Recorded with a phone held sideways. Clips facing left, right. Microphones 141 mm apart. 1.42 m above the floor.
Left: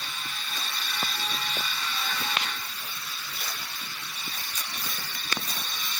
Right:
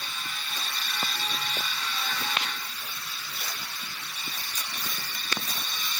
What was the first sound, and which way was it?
Only background noise.